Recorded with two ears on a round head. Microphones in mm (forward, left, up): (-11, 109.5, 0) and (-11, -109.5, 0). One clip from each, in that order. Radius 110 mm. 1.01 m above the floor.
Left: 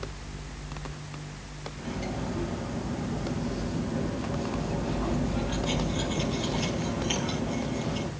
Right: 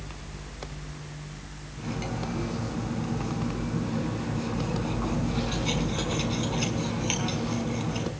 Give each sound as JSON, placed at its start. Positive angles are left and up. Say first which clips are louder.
{"t": 1.8, "sound": "cutlery clinking", "louder": "right 2 dB", "side_deg": -60, "distance_m": 6.0}